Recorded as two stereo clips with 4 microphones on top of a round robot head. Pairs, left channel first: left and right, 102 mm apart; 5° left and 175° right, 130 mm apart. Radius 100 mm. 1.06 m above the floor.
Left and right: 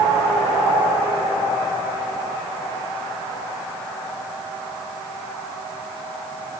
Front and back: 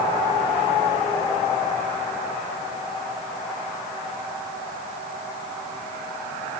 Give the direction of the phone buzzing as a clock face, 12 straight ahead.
I don't hear a phone buzzing.